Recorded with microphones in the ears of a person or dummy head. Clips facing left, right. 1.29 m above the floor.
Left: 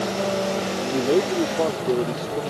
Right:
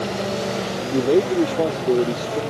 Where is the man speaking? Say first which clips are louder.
Right 4 dB; 20° right (ahead or behind).